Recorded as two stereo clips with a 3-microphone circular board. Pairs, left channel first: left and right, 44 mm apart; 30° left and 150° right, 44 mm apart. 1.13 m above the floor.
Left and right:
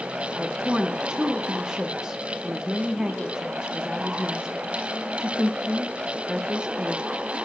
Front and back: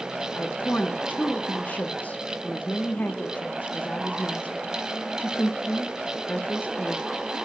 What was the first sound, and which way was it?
A woman speaking, 15° right.